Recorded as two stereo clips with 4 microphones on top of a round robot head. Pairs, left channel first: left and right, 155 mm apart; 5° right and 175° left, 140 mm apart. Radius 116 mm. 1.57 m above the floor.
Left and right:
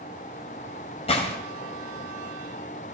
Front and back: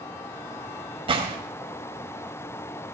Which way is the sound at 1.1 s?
130° left.